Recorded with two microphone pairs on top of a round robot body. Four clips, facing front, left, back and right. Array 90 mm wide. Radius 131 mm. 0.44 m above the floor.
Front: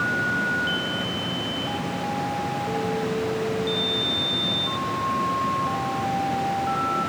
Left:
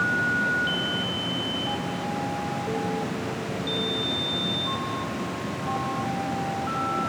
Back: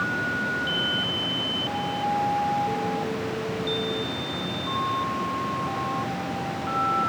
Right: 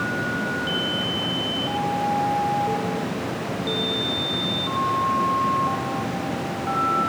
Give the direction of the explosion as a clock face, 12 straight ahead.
No explosion in this recording.